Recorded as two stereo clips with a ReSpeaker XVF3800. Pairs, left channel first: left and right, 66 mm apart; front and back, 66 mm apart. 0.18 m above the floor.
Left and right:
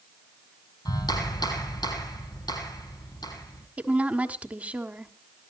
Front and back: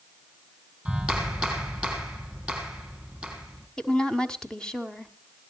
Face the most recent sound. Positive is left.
turn(degrees=-60)